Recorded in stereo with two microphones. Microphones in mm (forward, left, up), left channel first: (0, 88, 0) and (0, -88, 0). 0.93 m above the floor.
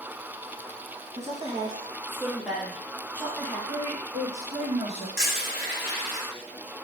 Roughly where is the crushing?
Right.